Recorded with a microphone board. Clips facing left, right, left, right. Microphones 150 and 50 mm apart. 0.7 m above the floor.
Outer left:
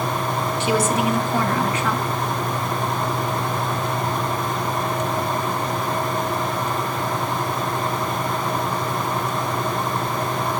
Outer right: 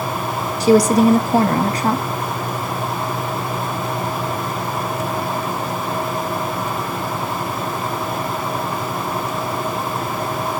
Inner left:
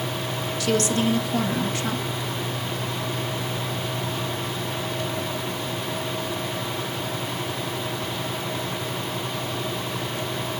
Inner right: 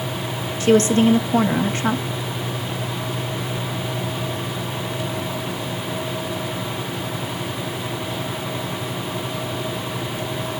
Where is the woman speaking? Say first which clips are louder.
Outer right 10 dB, inner right 8 dB; 40° right (ahead or behind), 0.8 m.